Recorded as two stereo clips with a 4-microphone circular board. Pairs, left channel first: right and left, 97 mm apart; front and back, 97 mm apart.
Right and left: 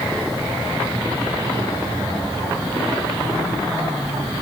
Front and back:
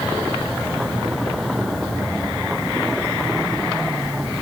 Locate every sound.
Only background noise.